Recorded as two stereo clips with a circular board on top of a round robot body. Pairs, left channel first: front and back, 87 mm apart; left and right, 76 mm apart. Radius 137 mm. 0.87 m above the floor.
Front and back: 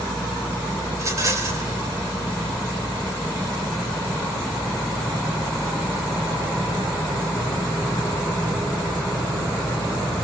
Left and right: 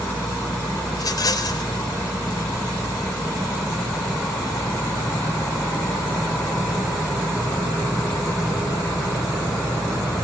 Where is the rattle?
125° left, 4.5 m.